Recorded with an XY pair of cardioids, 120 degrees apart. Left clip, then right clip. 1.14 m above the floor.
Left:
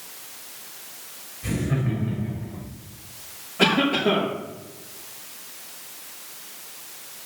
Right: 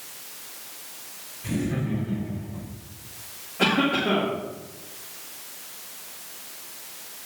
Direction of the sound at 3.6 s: 35° left.